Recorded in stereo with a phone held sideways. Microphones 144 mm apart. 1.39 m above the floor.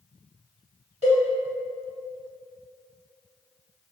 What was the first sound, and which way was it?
A cowbell, 50° right (ahead or behind).